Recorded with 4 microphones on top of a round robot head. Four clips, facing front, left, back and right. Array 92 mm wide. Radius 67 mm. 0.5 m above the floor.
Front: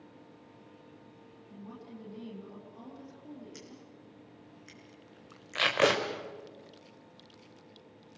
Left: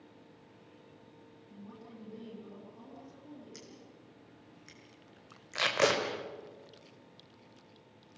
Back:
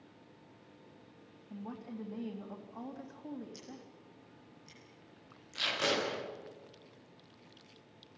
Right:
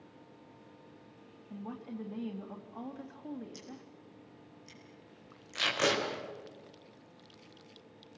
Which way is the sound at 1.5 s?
125° right.